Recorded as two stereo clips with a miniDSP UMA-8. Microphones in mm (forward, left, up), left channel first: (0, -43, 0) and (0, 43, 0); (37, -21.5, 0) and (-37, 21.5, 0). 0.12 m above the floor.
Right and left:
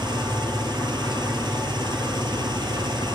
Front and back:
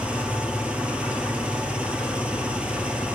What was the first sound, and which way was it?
An engine running, 75° left.